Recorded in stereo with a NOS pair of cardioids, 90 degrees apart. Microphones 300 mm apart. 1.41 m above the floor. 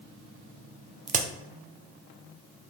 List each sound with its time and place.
1.1 s a crack: 25° right, 0.5 m